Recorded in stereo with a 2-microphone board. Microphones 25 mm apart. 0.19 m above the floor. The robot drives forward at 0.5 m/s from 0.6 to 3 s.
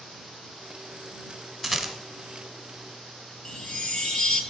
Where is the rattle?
5° right (ahead or behind), 0.9 m.